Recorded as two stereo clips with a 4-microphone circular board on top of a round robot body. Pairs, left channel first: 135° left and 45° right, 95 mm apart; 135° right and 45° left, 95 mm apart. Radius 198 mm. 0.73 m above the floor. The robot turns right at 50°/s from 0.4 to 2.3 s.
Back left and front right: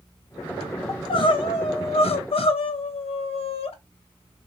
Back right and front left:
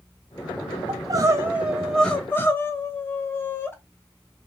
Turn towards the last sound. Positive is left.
turn(degrees=155)